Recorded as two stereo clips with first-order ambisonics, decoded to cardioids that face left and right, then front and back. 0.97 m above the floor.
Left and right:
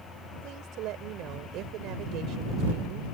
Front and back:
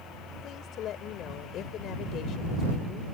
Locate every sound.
0.4 s a woman speaking: 50° right